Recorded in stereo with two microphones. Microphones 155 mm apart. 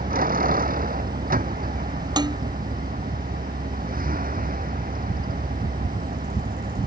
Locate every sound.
0.0 s a vehicle: 65° right (ahead or behind)
2.2 s dishes clattering: 25° right (ahead or behind)